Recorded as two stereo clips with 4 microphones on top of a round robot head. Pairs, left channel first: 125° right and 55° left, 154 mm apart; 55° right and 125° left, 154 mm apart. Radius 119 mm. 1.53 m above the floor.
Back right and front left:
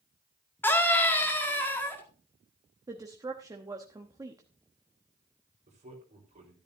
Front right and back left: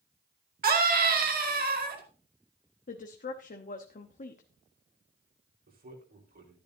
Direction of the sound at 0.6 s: 155° left.